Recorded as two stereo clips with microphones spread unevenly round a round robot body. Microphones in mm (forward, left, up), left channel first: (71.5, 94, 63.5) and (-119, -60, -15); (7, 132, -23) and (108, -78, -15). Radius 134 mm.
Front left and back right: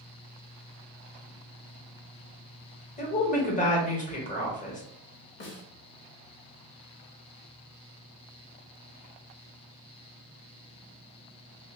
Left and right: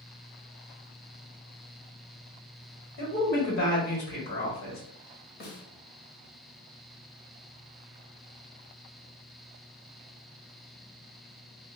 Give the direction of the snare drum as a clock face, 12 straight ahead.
9 o'clock.